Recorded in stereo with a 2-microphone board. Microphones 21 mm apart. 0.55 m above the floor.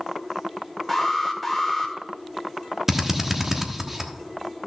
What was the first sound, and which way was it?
An alarm, centre (ahead or behind).